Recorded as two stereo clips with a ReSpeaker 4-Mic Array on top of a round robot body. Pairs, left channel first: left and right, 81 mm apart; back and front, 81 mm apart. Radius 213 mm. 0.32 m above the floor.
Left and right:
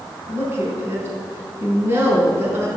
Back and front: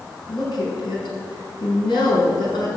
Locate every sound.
0.3 s a woman speaking: 155° right, 4.5 m